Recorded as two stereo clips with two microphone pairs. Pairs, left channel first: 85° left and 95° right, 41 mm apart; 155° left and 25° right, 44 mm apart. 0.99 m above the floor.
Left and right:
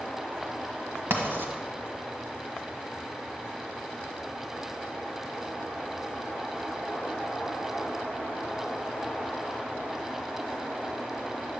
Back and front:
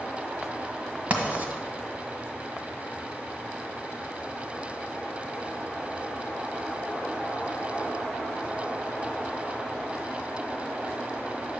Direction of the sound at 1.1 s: 75° right.